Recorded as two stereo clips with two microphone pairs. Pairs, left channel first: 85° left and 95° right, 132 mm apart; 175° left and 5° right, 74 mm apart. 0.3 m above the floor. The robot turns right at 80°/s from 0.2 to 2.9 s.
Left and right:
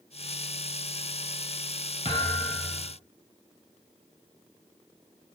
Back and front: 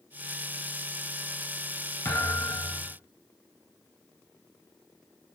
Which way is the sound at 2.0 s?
125° left.